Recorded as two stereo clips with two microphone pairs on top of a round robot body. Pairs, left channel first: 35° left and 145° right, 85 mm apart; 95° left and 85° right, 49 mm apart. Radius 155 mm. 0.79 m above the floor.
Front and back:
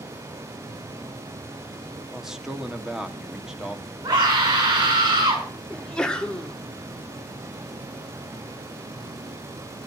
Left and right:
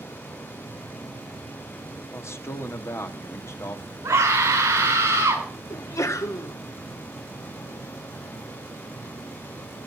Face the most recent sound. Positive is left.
turn(degrees=115)